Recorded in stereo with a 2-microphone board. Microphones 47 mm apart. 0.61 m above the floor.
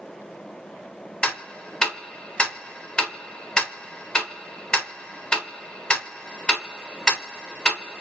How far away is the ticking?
About 1.1 m.